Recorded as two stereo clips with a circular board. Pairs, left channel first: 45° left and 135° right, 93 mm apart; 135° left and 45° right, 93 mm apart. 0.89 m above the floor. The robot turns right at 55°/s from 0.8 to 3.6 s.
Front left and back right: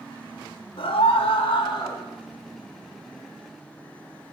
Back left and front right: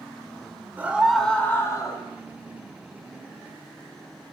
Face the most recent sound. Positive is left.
turn(degrees=180)